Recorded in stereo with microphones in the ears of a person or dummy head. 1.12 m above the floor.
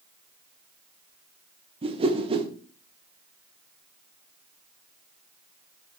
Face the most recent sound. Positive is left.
turn(degrees=-25)  # may be behind; listen again after turning